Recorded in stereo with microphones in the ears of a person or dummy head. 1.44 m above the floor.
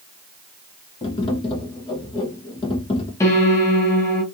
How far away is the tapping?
About 0.8 m.